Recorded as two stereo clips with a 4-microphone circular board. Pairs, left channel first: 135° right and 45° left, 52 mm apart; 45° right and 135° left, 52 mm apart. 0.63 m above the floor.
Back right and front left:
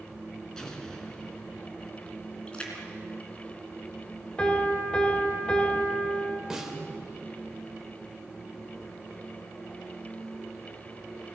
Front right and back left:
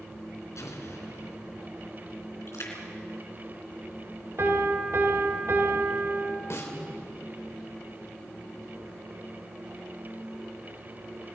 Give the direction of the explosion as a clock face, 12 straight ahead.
2 o'clock.